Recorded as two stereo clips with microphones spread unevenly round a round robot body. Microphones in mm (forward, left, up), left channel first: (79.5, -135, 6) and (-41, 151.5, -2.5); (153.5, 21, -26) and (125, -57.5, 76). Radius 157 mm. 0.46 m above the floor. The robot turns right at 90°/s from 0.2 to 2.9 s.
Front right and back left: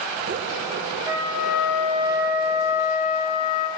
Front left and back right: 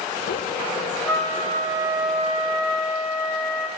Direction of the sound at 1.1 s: 175° right.